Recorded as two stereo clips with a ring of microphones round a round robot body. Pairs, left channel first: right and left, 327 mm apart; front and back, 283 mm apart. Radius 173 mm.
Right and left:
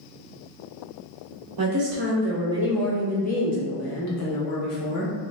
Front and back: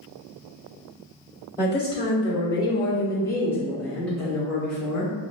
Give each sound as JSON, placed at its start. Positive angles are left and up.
{"t": 1.6, "sound": "a woman speaking", "azimuth_deg": 70, "distance_m": 0.9}